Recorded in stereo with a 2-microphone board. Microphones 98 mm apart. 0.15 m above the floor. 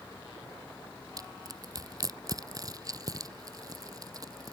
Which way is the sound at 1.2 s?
40° right (ahead or behind).